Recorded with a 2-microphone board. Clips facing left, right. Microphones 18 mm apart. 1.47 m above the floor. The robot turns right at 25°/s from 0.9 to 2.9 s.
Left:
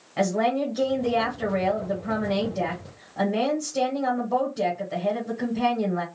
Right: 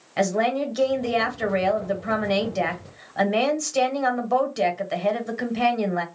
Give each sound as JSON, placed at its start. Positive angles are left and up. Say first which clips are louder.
{"t": 0.2, "sound": "a woman speaking", "louder": "right 1 dB", "azimuth_deg": -150, "distance_m": 1.2}